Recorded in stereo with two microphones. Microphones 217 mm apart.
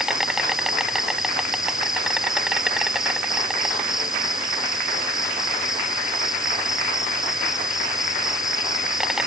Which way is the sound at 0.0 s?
Centre (ahead or behind).